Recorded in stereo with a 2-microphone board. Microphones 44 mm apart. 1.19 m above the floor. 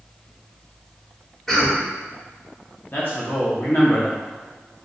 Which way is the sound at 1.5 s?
10° left (ahead or behind).